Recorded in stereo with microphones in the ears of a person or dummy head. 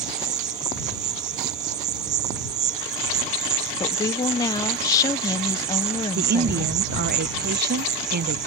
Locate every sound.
0.0 s an insect: 20° right (ahead or behind)
3.8 s a woman speaking: 20° left (ahead or behind)
6.2 s a woman speaking: 50° right (ahead or behind)